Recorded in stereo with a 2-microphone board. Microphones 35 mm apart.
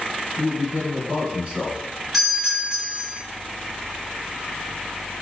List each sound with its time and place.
0.4 s a man speaking: 30° right (ahead or behind), 1.4 m
2.1 s a doorbell: centre (ahead or behind), 1.6 m